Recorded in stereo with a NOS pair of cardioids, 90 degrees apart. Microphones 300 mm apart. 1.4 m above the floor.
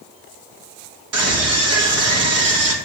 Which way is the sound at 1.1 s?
55° right.